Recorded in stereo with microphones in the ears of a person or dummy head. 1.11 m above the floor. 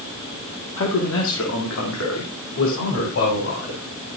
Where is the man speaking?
75° left (ahead or behind), 1.9 m; by 4.1 s 60° left (ahead or behind), 3.5 m.